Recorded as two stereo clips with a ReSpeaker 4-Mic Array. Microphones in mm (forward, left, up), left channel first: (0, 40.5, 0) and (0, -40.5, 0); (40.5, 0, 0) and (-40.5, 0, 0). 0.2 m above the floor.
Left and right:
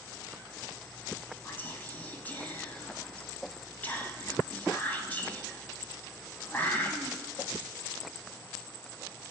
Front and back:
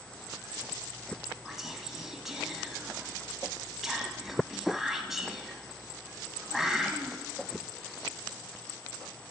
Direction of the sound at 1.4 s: 100° left.